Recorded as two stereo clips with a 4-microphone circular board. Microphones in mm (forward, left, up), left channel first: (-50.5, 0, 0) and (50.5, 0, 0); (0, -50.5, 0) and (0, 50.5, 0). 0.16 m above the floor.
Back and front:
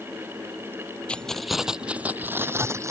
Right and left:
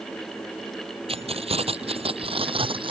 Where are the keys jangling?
100° left; by 2.9 s 60° left.